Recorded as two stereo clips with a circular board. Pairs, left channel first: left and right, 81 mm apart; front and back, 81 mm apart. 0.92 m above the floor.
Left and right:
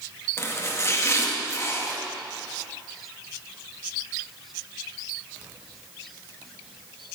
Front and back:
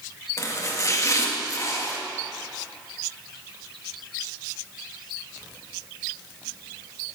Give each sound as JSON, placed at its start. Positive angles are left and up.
{"t": 0.4, "sound": "chopping", "azimuth_deg": 40, "distance_m": 1.7}